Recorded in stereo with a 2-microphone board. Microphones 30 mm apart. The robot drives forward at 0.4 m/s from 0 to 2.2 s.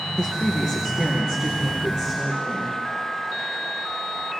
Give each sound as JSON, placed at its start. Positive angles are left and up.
{"t": 0.2, "sound": "a woman speaking", "side_deg": -15, "distance_m": 3.0}